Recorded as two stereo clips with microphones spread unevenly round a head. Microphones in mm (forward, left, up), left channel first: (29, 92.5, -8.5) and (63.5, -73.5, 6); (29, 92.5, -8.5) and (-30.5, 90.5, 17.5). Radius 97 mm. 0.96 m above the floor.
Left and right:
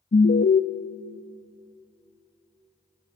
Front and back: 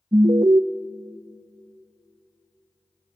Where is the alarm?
150° left, 0.6 m.